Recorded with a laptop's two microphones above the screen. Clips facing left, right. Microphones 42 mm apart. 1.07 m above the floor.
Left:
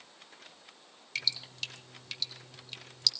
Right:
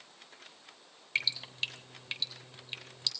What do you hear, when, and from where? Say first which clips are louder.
1.1 s dripping: right 3 dB; 25° right (ahead or behind), 3 m